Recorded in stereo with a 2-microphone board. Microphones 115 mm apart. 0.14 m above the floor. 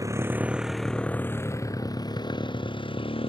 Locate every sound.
0.0 s a motorcycle: 30° right (ahead or behind); by 3.3 s 50° left (ahead or behind)